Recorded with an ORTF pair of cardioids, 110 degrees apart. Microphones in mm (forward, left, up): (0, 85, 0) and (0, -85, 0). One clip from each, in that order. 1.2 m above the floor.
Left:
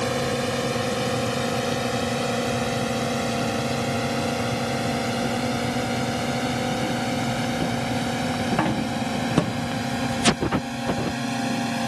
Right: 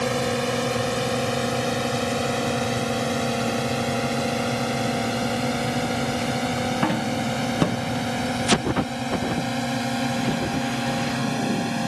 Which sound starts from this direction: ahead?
A drone, at 0.0 s.